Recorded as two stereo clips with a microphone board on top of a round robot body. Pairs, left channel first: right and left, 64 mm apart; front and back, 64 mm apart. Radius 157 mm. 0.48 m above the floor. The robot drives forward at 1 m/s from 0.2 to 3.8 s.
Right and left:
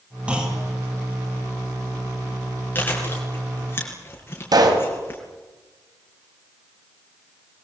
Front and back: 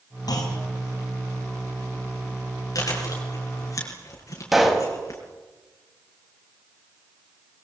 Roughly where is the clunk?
Ahead.